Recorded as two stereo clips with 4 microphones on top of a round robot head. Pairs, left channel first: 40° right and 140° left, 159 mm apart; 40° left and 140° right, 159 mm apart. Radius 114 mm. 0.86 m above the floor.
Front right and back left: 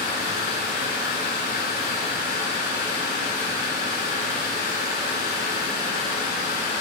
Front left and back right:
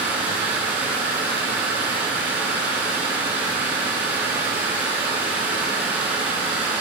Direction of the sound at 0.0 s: 60° right.